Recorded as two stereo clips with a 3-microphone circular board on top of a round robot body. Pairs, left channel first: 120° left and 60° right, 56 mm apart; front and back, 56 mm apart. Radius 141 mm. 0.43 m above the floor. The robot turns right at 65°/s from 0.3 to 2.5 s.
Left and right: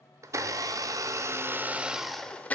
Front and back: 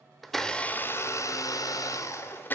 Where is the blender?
90° right, 0.5 m; by 2.5 s 55° left, 0.5 m.